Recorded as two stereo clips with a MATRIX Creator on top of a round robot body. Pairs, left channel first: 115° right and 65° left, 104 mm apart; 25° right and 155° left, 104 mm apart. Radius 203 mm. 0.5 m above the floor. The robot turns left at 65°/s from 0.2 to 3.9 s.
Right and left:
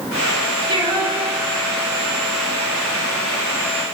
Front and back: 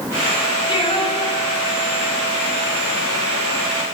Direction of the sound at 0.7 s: 20° left.